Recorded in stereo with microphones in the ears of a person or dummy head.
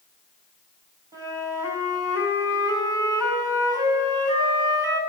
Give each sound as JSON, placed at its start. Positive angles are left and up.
{"t": 1.1, "sound": "a flute", "side_deg": -10, "distance_m": 3.5}